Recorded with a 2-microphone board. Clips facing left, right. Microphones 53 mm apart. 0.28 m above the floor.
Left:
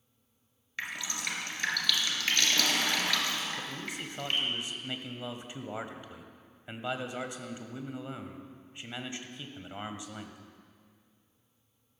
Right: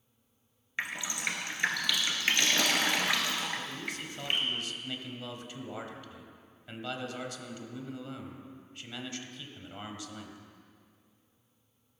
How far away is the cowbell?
I don't hear a cowbell.